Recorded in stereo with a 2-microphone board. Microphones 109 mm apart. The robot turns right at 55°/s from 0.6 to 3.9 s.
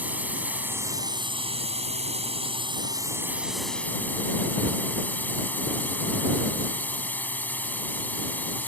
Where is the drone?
165° right; by 8.7 s 15° left.